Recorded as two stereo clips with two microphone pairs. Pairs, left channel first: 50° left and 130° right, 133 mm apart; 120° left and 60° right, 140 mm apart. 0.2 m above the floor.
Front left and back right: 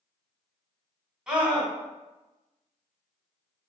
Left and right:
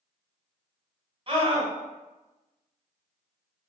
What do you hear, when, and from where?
1.3 s a scream: 55° right, 2.0 m